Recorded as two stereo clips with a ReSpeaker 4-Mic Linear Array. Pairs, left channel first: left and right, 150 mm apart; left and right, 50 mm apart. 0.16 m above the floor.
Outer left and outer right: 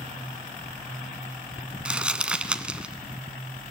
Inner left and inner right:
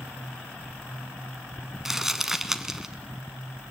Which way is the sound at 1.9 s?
5° right (ahead or behind).